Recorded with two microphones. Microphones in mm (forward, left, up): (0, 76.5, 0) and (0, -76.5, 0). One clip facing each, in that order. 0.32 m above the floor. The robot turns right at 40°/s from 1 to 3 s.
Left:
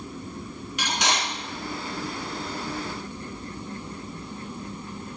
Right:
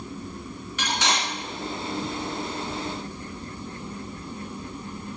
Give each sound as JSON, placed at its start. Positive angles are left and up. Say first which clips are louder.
{"t": 0.8, "sound": "cutlery clinking", "louder": "even", "side_deg": 15, "distance_m": 2.0}